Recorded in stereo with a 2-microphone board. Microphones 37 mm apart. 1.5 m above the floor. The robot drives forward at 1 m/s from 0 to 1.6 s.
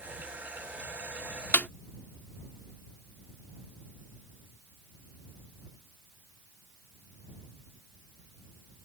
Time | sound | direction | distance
1.5 | a snare drum | 60° left (ahead or behind) | ?